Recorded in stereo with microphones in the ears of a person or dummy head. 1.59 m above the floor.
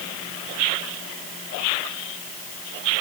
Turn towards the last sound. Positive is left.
No sound to turn to.